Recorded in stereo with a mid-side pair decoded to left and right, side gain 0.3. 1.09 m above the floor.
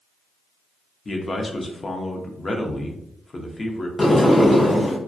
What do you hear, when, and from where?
1.1 s a man speaking: 40° left, 0.6 m
4.0 s a sliding door: 30° left, 0.6 m